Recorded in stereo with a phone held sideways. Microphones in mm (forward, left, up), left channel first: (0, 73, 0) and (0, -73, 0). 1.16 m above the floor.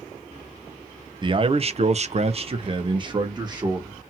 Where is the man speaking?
30° right (ahead or behind), 0.5 m; by 4.0 s 25° right (ahead or behind), 1.2 m.